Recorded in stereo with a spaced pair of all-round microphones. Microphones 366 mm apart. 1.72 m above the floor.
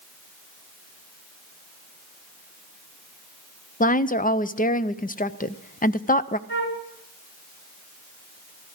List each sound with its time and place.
3.8 s a woman speaking: 25° left (ahead or behind), 0.5 m
6.5 s a flute: 30° left (ahead or behind), 2.5 m